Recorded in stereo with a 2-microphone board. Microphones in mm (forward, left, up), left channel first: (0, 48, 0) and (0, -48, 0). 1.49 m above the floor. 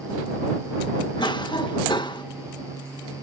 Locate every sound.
1.2 s a cough: 55° left (ahead or behind)